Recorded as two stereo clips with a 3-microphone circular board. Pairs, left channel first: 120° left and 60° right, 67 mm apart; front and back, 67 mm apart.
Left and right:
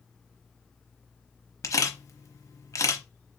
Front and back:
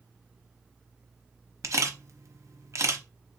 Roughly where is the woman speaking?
No woman speaking in this recording.